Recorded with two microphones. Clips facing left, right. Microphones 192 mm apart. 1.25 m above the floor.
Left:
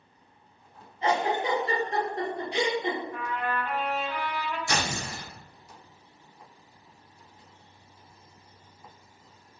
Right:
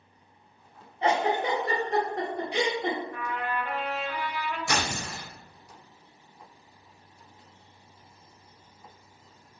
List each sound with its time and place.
1.0 s a giggle: 65° right (ahead or behind), 0.9 m
3.1 s a trumpet: 50° right (ahead or behind), 0.9 m
4.7 s tearing paper: 65° right (ahead or behind), 1.1 m